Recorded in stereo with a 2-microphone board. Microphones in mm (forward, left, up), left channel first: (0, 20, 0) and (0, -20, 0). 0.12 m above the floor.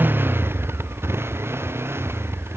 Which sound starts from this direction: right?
A motorcycle, at 0.0 s.